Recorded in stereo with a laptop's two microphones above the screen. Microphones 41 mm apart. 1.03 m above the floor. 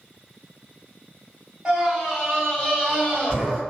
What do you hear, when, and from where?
1.6 s a scream: 10° right (ahead or behind), 1.2 m; by 3.6 s 30° left (ahead or behind), 1.9 m